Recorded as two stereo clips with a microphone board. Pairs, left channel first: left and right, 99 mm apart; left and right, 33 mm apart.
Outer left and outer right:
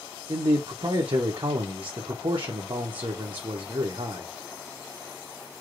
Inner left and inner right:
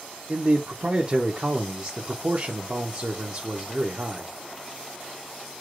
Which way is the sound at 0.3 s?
55° right (ahead or behind).